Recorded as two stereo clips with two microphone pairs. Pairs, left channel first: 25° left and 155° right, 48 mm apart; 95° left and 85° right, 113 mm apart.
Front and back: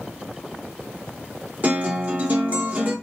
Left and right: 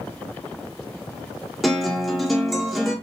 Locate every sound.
1.6 s a guitar: straight behind, 1.1 m